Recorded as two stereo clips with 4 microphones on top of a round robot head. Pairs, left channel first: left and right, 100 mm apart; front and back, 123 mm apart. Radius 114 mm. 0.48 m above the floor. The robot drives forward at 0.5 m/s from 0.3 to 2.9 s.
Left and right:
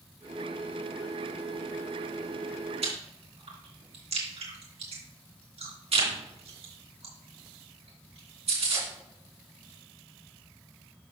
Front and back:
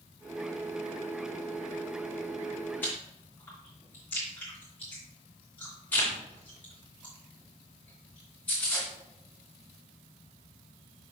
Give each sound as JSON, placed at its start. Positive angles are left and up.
{"t": 2.8, "sound": "chewing", "azimuth_deg": -75, "distance_m": 2.5}